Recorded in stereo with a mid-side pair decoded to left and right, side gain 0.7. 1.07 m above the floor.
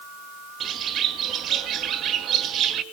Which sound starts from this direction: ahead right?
A bird, at 0.6 s.